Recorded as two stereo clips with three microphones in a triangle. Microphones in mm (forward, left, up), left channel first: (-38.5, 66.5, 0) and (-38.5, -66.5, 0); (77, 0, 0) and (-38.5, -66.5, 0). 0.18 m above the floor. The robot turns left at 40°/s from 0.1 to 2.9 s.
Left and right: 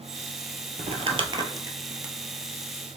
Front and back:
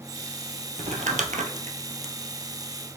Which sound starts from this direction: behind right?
Crumpling, at 0.8 s.